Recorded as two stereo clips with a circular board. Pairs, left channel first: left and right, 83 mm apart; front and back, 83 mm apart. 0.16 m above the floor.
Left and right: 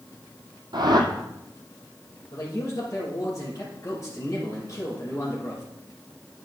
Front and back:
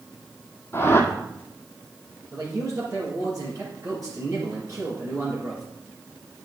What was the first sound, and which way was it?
A whoosh, 60° right.